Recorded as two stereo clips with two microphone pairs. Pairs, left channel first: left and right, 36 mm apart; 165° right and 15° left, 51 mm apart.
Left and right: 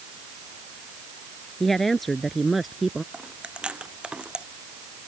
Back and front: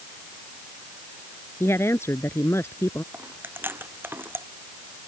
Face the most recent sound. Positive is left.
turn(degrees=-30)